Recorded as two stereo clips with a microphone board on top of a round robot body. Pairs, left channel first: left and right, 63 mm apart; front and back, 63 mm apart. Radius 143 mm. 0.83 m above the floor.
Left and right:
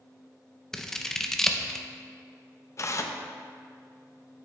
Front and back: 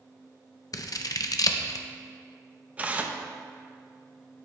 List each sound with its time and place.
0.7 s scissors: 10° left, 0.7 m
2.8 s tearing paper: 115° left, 0.7 m